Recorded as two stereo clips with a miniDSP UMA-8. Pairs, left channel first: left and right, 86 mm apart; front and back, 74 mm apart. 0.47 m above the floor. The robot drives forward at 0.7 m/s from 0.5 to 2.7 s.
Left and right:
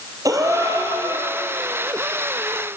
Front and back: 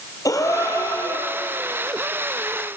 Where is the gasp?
40° right, 4.5 m; by 1.3 s 45° right, 4 m.